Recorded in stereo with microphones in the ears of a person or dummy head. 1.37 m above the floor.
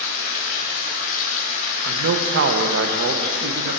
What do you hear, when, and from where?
0.0 s running water: 50° left (ahead or behind), 1.1 m
1.8 s a man speaking: 70° right (ahead or behind), 0.7 m